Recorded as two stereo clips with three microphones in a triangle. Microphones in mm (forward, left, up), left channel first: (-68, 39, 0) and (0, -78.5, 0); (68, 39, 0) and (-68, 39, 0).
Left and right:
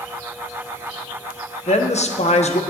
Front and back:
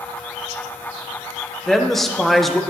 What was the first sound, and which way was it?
A woman speaking, 90° left.